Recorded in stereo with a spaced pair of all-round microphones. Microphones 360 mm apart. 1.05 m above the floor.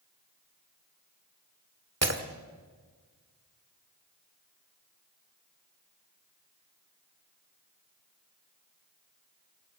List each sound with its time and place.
2.0 s breaking glass: 45° right (ahead or behind), 1.5 m